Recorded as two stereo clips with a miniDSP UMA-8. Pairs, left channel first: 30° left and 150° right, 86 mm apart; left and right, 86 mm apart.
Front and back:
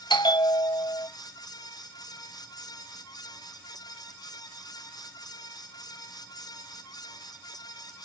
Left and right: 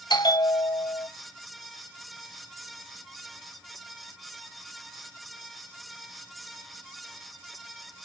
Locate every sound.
0.1 s a bell: 60° left, 1.0 m